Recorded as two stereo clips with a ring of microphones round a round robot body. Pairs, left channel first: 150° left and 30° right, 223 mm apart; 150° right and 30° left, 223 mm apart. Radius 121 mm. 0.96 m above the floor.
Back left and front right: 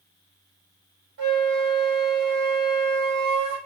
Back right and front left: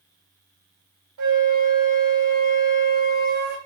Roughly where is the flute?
Ahead.